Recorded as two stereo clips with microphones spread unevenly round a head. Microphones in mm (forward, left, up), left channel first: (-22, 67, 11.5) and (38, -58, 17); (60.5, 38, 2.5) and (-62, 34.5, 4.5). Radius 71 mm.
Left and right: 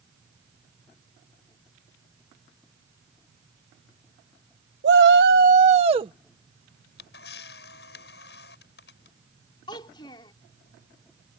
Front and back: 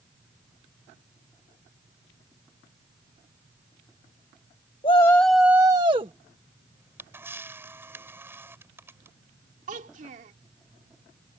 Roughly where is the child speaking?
Behind.